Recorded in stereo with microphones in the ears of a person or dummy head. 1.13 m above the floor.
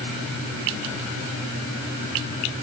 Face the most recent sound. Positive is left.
No sound to turn to.